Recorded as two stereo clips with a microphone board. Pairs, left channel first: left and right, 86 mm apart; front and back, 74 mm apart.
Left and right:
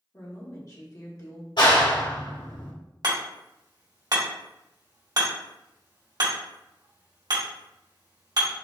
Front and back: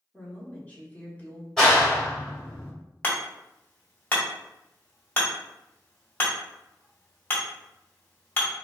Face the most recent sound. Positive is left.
turn(degrees=-65)